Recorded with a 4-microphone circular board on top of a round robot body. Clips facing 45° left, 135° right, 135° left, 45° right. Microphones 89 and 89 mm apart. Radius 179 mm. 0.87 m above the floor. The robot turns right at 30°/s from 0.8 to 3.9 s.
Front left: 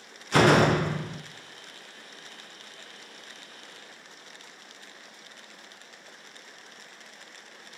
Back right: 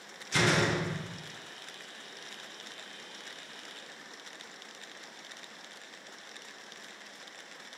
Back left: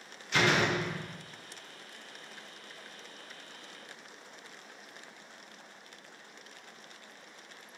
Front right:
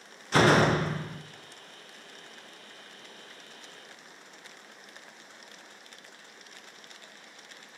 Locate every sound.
0.3 s a door slam: 5° left, 0.5 m; by 1.2 s 20° left, 0.5 m